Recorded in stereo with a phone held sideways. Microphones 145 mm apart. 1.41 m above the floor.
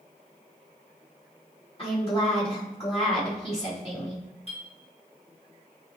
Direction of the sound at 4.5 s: 40° left (ahead or behind).